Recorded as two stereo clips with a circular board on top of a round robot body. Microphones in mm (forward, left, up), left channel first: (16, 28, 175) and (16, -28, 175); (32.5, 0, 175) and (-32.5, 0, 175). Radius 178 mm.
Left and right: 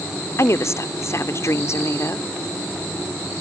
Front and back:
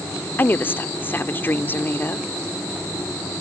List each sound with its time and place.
0.4 s a woman speaking: 55° left